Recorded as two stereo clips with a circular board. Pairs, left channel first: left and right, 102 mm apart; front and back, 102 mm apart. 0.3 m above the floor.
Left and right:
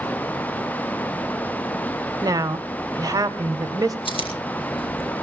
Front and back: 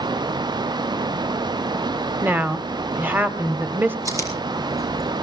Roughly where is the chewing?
Behind left.